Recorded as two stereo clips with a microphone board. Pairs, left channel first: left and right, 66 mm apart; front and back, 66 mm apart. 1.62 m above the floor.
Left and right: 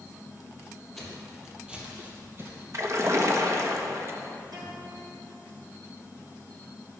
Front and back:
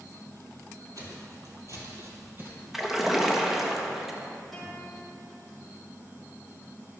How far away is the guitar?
About 4 m.